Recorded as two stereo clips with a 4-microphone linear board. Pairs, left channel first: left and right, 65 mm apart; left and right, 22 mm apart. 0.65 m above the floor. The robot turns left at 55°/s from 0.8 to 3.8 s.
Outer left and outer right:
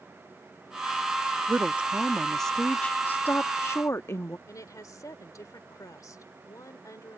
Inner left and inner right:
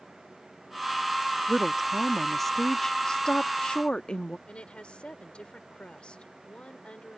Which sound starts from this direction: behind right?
A woman speaking, at 1.5 s.